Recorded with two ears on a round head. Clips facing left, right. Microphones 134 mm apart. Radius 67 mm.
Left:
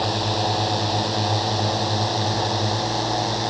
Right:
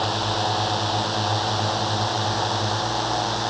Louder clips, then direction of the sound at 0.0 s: Left 1 dB; 15° left (ahead or behind).